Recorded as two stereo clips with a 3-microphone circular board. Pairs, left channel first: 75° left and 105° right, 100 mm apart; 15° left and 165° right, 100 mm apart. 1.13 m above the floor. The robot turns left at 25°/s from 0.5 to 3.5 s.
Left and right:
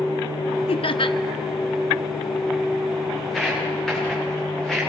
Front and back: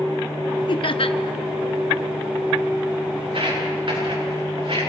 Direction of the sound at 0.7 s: 50° left.